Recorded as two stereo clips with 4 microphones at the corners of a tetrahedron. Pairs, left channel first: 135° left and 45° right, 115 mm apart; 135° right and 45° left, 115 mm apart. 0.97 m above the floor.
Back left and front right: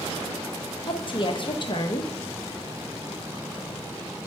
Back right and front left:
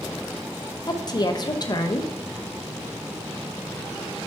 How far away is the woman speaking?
About 0.6 m.